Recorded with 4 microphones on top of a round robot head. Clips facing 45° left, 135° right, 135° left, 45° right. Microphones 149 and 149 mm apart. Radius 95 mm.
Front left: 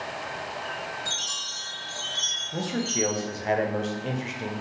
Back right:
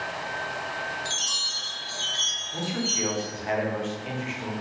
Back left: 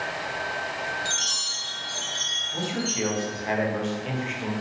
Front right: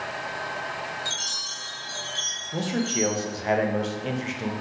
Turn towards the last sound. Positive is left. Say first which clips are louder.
# front left 2 dB, front right 3 dB
turn(degrees=0)